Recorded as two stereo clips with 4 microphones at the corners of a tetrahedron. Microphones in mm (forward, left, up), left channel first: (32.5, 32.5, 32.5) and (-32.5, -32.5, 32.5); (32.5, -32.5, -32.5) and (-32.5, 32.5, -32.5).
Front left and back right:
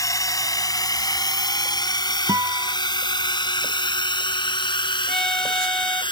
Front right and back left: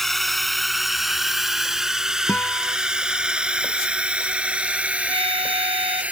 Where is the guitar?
115° right.